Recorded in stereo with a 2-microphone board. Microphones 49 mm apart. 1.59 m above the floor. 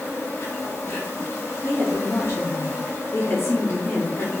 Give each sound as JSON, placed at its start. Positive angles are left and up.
{"t": 0.0, "sound": "an insect", "side_deg": 60, "distance_m": 1.2}
{"t": 1.6, "sound": "a woman speaking", "side_deg": 55, "distance_m": 0.7}